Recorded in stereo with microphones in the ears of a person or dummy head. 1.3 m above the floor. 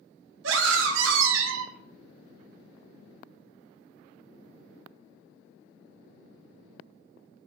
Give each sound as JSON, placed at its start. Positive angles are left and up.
{"t": 0.4, "sound": "a scream", "side_deg": -70, "distance_m": 1.1}